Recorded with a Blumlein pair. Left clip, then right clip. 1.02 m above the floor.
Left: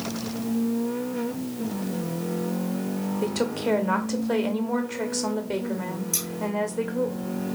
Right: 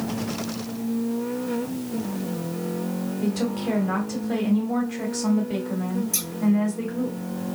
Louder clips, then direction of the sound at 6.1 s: Left 3 dB; 10° left.